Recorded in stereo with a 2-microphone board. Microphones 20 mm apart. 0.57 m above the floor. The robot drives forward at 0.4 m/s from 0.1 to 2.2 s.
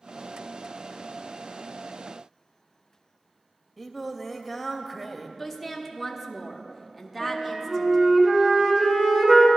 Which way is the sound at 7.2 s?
30° right (ahead or behind).